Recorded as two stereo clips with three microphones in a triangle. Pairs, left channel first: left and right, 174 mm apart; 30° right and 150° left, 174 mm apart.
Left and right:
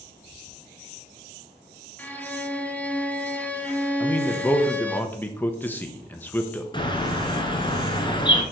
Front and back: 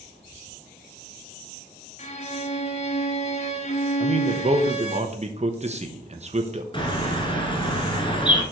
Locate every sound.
2.0 s a violin: 10° left, 1.3 m
4.0 s a man speaking: 165° left, 1.0 m
6.7 s a bird: 30° left, 1.8 m